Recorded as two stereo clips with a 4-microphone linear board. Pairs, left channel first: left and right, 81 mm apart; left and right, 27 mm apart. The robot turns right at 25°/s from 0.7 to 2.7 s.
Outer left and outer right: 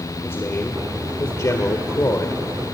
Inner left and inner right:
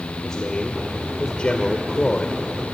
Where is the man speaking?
40° left, 1.8 m; by 2.4 s 85° left, 1.8 m.